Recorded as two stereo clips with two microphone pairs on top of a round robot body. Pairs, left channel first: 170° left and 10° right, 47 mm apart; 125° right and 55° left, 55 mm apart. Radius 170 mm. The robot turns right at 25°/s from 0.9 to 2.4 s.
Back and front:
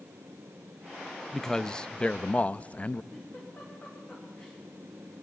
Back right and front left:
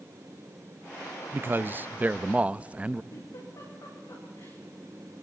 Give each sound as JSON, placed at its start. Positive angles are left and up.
{"t": 1.3, "sound": "a man speaking", "azimuth_deg": 90, "distance_m": 0.7}
{"t": 3.1, "sound": "a giggle", "azimuth_deg": -135, "distance_m": 9.0}